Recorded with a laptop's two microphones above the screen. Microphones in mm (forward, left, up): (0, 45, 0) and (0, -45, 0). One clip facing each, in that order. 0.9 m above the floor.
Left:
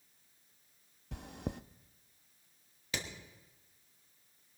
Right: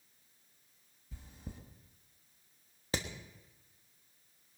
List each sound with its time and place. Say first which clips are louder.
1.1 s chewing: left 10 dB; 75° left (ahead or behind), 0.5 m
2.9 s hammering: right 4 dB; 35° right (ahead or behind), 1.2 m